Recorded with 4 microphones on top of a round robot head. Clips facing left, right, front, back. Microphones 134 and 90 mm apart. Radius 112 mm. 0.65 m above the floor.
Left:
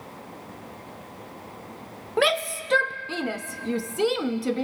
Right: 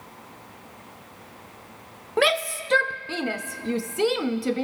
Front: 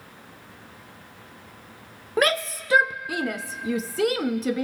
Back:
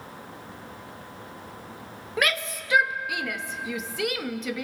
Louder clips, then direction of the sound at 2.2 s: Right 1 dB, front 5 dB; straight ahead.